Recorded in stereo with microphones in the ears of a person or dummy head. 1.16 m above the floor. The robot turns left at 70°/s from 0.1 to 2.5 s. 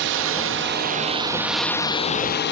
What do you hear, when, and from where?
0.0 s a drone: 80° right; by 2.5 s 115° left